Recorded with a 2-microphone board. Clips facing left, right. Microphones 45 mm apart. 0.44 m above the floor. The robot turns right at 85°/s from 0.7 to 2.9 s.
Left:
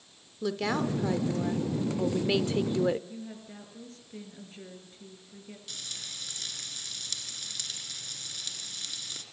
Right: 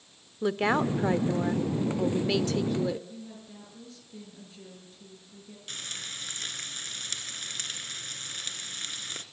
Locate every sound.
0.4 s a woman speaking: 120° right, 1.0 m; by 3.0 s 65° left, 1.0 m
3.1 s a woman speaking: 35° left (ahead or behind), 7.5 m
5.7 s frying: 40° right (ahead or behind), 2.5 m